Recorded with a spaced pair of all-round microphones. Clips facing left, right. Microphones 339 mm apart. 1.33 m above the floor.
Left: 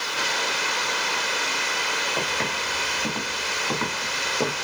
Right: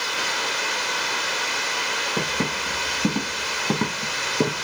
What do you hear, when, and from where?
2.2 s footsteps: 55° right (ahead or behind), 3.5 m; by 4.6 s 50° right (ahead or behind), 4.5 m